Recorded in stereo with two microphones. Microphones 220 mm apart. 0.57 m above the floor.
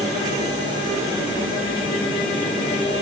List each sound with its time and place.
Only background noise.